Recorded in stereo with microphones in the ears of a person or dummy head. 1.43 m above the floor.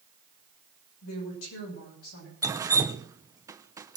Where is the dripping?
20° right (ahead or behind), 0.6 m.